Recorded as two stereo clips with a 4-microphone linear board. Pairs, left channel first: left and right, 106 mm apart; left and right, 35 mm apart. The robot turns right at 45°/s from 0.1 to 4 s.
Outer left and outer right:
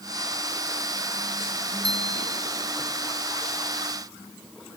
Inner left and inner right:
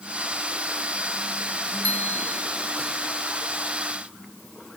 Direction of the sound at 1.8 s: 60° left (ahead or behind).